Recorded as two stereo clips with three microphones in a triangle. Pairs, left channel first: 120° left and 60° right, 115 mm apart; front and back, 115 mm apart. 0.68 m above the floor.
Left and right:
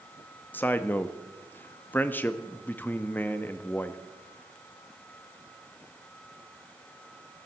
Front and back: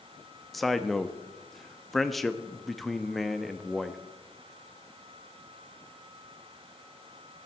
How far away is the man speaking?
About 0.6 m.